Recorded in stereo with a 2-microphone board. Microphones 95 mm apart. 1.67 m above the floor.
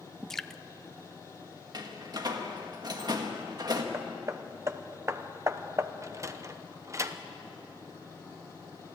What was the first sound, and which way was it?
Dripping, 5° left (ahead or behind).